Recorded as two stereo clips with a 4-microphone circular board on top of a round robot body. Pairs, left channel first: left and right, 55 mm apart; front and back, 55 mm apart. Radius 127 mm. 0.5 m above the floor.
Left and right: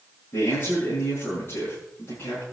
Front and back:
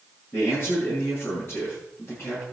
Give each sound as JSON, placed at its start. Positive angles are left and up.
{"t": 0.3, "sound": "a man speaking", "azimuth_deg": 50, "distance_m": 10.0}